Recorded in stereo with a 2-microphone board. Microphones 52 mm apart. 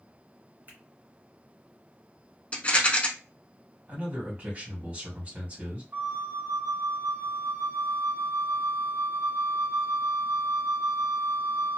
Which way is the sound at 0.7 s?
40° right (ahead or behind).